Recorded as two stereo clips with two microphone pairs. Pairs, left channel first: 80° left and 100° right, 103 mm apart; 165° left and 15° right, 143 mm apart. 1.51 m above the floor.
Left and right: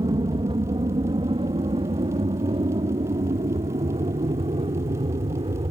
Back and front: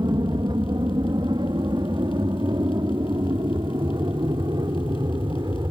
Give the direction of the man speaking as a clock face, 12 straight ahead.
No man speaking in this recording.